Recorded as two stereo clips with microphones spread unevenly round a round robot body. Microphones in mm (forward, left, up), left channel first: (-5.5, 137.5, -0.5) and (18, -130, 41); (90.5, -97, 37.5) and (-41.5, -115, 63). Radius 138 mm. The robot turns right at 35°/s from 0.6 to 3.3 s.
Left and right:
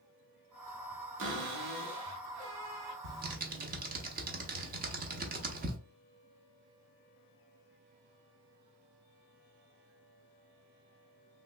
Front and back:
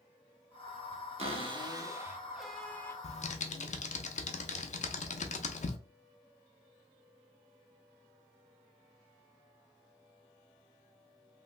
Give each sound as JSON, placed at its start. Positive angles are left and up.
{"t": 1.2, "sound": "a cupboard door", "azimuth_deg": -130, "distance_m": 0.9}
{"t": 3.0, "sound": "typing on a keyboard", "azimuth_deg": -30, "distance_m": 0.6}